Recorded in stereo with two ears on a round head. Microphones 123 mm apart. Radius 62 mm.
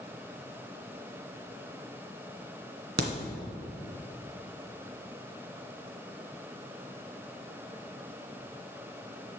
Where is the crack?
80° right, 1.8 m.